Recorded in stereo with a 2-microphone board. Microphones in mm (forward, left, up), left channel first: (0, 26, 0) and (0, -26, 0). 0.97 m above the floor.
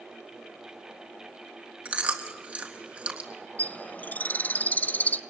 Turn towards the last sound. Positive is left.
turn(degrees=30)  # may be behind; listen again after turning